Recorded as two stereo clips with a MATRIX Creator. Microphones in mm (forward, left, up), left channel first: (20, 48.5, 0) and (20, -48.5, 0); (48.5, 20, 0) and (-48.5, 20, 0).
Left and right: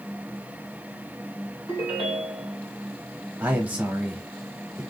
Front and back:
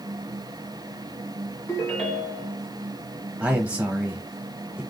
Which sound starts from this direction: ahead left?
A ringtone, at 1.7 s.